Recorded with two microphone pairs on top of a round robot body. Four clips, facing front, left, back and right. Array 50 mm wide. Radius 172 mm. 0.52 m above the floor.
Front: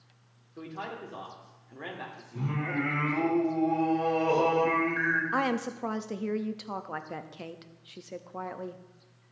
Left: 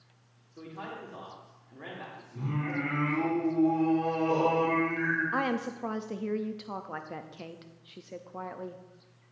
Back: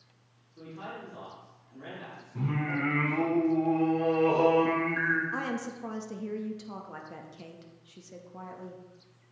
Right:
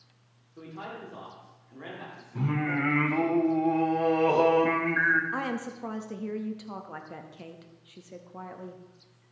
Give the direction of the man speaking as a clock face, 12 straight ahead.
12 o'clock.